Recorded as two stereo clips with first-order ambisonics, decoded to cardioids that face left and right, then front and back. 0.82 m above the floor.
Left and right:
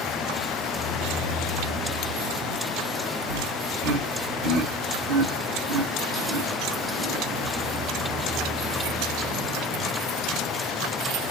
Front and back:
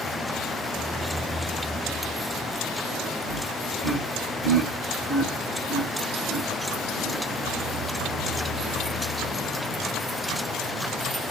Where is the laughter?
95° right, 2.5 m.